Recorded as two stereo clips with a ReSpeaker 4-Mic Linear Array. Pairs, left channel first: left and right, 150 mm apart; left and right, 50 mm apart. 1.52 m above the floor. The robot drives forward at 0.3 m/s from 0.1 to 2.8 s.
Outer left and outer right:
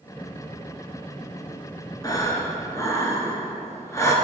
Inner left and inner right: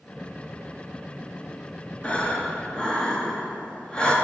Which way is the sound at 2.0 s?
25° left (ahead or behind).